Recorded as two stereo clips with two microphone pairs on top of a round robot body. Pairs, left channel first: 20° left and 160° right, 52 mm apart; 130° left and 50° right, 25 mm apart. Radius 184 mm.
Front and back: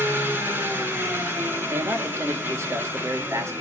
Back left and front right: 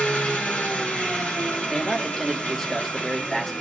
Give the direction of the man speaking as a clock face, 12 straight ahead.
6 o'clock.